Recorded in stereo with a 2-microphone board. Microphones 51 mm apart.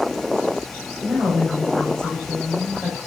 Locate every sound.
1.0 s a woman speaking: 50° right (ahead or behind), 5.5 m